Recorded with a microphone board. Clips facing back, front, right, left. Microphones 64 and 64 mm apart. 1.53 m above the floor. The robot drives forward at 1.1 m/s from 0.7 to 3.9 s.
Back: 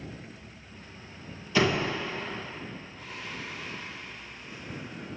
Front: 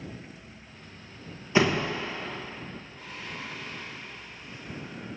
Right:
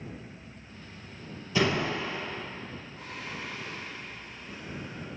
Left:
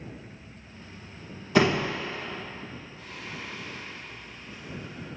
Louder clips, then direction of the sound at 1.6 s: Front 1 dB, left 4 dB; 65° left.